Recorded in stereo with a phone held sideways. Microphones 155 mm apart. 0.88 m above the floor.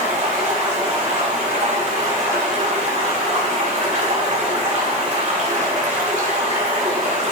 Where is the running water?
50° right (ahead or behind), 2.5 m.